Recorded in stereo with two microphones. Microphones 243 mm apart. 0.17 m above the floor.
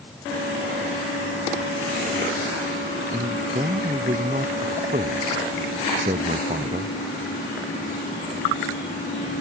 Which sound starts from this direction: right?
A man speaking, at 3.1 s.